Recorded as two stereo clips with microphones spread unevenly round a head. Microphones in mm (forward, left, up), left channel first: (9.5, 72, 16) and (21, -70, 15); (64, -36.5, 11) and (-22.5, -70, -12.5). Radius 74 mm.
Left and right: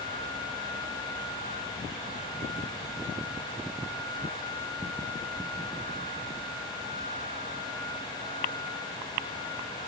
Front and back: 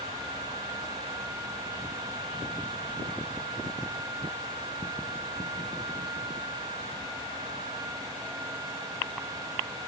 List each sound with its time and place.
Only background noise.